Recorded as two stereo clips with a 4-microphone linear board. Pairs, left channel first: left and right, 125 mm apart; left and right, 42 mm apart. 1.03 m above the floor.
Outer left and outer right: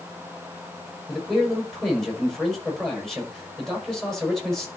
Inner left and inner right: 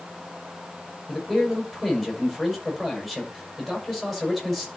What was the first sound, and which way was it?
A man speaking, 5° left (ahead or behind).